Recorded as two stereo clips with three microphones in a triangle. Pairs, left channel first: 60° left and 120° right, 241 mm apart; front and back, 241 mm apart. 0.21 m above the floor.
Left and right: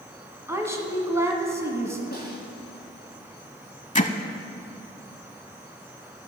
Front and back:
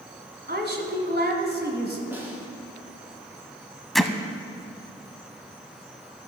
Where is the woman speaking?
165° left, 1.5 m.